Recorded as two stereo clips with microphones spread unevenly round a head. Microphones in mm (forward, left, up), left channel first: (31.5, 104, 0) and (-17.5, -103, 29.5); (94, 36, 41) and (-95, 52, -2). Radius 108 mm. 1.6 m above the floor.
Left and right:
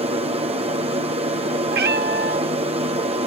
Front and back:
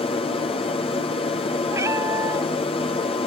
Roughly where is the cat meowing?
Right.